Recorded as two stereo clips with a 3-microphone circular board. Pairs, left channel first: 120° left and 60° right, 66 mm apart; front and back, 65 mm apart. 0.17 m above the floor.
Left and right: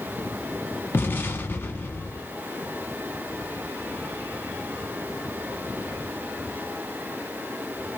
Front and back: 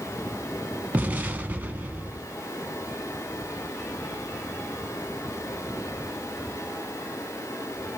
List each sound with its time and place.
0.9 s an explosion: 140° left, 0.6 m